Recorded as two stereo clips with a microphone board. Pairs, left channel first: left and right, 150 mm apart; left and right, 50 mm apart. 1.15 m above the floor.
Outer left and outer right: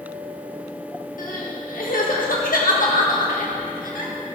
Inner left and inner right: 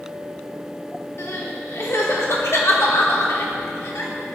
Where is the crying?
70° left (ahead or behind), 1.8 m.